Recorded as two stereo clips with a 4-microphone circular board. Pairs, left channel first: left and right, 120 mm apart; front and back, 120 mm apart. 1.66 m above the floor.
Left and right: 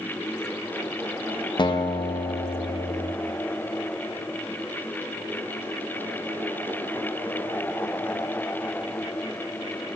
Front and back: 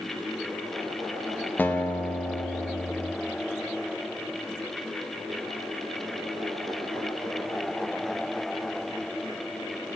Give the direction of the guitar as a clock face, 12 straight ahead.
10 o'clock.